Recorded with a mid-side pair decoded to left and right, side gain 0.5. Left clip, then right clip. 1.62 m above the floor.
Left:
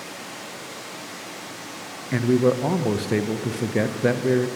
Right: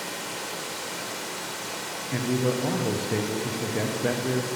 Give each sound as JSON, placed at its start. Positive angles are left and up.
{"t": 0.0, "sound": "running water", "azimuth_deg": -55, "distance_m": 1.8}
{"t": 2.1, "sound": "a man speaking", "azimuth_deg": 40, "distance_m": 0.7}